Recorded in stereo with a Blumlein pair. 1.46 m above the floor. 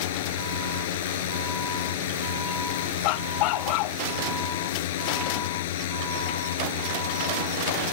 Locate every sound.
0.0 s a drone: 55° left
3.0 s a dog barking: 40° left